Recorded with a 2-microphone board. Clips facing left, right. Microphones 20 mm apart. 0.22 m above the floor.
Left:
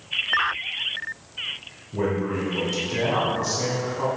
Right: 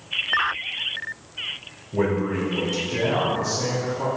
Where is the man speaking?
20° right (ahead or behind), 1.9 m; by 4.1 s 55° left (ahead or behind), 2.5 m.